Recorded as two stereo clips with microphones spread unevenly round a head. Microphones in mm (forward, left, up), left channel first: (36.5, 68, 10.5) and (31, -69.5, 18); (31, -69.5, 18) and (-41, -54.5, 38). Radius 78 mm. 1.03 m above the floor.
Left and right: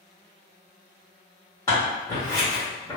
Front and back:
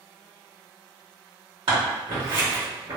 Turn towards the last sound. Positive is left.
turn(degrees=160)